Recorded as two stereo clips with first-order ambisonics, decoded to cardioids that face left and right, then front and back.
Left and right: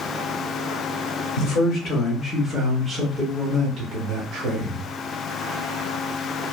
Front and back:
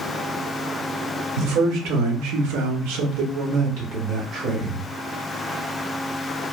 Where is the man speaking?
135° left, 1.0 m; by 4.9 s 125° right, 1.3 m.